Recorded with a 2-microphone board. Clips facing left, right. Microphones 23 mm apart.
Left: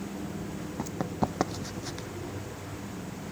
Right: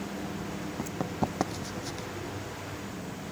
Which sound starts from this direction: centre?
Running footsteps, at 0.8 s.